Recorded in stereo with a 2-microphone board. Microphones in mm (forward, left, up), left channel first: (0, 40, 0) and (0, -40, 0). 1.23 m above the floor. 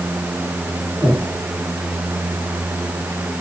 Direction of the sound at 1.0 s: 5° left (ahead or behind).